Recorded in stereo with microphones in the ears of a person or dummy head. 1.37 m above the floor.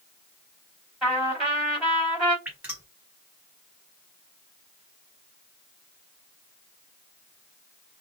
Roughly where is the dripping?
Centre.